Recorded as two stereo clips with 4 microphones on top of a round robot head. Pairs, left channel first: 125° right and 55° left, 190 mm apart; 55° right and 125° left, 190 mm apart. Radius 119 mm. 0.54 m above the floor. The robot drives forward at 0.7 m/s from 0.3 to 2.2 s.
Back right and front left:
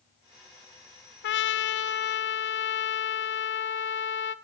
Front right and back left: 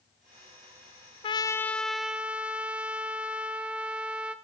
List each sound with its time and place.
1.2 s a trumpet: 115° right, 0.6 m; by 4.3 s 150° right, 1.1 m